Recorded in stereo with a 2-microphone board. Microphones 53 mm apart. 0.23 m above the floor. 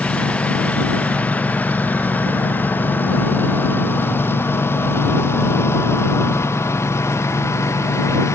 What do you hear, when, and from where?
0.0 s a lawn mower: 20° left (ahead or behind); by 8.3 s 60° left (ahead or behind)